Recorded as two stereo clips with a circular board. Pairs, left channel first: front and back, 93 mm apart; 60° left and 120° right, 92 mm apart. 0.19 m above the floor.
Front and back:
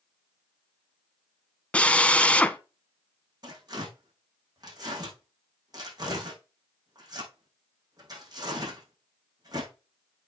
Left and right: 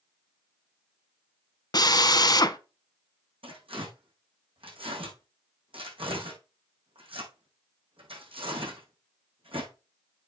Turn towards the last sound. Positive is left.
turn(degrees=-135)